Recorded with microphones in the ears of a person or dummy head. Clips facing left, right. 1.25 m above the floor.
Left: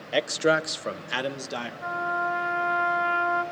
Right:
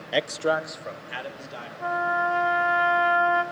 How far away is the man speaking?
About 0.6 m.